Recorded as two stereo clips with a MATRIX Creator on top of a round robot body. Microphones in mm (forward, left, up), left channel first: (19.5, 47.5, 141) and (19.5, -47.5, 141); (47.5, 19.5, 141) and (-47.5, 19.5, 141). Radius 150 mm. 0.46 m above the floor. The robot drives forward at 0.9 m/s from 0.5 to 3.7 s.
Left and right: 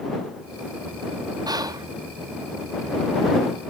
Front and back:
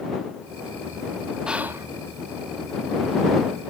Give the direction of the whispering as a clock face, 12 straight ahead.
3 o'clock.